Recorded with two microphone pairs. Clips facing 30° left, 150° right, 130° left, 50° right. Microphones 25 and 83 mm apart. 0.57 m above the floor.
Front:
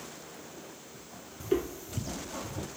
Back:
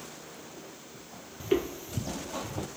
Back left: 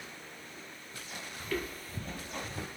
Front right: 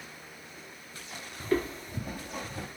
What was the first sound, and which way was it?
Footsteps, 100° right.